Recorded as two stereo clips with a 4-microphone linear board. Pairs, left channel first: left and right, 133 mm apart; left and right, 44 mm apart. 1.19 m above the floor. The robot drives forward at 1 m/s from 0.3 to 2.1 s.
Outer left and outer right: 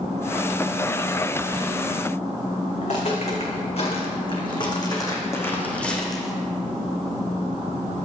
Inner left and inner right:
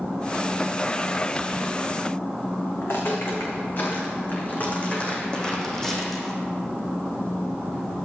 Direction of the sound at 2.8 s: 60° left (ahead or behind).